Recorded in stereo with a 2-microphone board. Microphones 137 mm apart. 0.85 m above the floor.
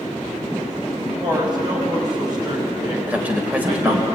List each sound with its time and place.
1.2 s a woman speaking: 30° right (ahead or behind), 5 m
3.1 s a man speaking: 10° right (ahead or behind), 4 m